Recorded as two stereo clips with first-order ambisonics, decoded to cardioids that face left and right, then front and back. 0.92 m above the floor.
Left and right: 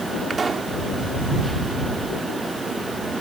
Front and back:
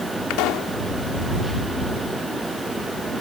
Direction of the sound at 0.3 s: 15° right.